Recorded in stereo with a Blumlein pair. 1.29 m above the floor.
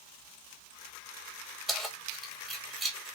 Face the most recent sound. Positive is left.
turn(degrees=-15)